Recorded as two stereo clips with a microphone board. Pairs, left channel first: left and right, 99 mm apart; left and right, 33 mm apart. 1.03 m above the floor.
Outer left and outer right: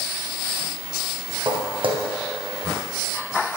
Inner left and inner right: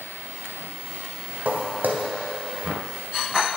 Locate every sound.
1.4 s footsteps: 70° right (ahead or behind), 3 m